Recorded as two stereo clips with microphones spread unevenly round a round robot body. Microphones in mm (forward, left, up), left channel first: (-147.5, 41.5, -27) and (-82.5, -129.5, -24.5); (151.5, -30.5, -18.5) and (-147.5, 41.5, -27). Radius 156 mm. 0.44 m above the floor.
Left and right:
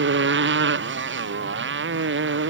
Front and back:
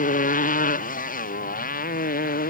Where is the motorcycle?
80° right.